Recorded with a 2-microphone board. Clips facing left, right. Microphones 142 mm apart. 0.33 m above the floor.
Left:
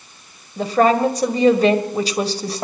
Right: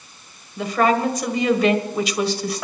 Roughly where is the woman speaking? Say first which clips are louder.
Left 3 dB; left.